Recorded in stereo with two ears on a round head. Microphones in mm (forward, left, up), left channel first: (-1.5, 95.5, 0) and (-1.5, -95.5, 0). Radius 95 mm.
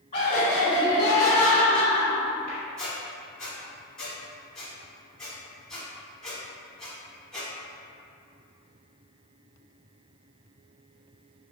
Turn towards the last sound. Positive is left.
turn(degrees=5)  # may be behind; listen again after turning